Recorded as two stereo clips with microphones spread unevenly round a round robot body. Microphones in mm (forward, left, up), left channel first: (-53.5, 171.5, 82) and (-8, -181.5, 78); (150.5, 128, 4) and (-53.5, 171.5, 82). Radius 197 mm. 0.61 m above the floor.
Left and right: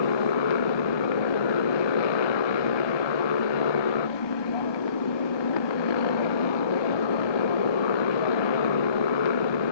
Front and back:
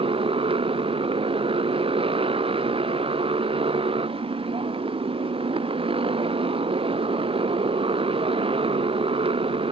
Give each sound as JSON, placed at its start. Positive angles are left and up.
{"t": 0.0, "sound": "a motorcycle", "azimuth_deg": 105}